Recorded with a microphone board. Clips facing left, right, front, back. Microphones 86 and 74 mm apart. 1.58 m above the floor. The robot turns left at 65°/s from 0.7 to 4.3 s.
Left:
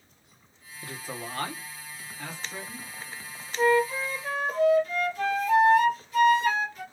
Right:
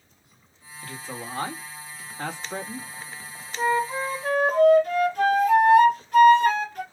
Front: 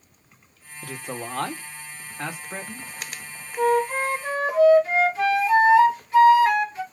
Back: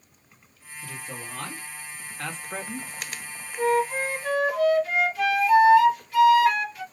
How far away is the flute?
About 1.2 m.